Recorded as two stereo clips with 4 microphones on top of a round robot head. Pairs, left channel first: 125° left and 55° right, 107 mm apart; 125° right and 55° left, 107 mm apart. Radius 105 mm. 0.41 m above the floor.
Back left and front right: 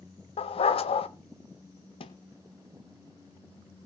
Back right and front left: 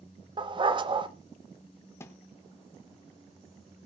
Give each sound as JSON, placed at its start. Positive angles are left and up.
{"t": 0.4, "sound": "a dog barking", "azimuth_deg": 95, "distance_m": 1.0}
{"t": 2.0, "sound": "a thud", "azimuth_deg": 165, "distance_m": 1.5}